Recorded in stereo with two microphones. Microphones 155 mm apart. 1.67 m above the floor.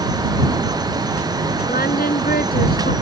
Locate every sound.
1.7 s singing: 75° left (ahead or behind)